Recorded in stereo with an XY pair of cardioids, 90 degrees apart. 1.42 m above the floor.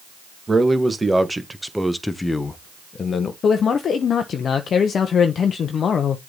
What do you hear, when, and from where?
0.5 s a man speaking: 25° right, 1.8 m; by 3.3 s 60° left, 1.0 m
3.4 s a man speaking: 60° left, 0.8 m